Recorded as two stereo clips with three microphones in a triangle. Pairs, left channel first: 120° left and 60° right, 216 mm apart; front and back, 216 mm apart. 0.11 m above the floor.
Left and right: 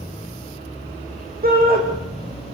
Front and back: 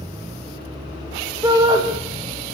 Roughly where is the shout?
Right.